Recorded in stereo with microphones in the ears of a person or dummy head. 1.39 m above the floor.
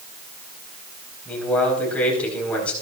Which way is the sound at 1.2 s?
10° left (ahead or behind).